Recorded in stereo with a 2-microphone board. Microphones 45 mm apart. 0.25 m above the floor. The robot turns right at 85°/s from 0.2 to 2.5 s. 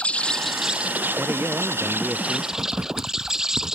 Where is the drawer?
I don't hear a drawer.